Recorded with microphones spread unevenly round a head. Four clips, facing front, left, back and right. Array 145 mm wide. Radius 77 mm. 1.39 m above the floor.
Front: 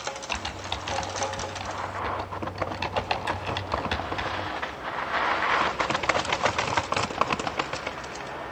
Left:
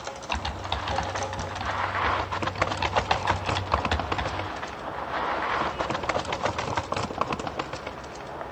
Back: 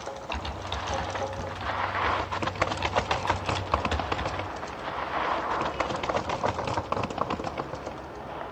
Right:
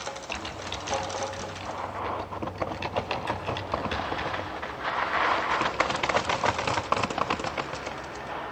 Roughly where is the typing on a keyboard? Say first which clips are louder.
Left 5 dB, front 1 dB; ahead left.